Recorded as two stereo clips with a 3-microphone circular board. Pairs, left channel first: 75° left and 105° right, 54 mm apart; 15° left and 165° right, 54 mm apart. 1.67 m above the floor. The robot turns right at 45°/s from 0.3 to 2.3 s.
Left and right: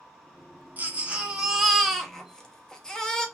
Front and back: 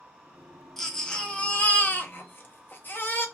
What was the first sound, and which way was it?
A baby crying, 65° right.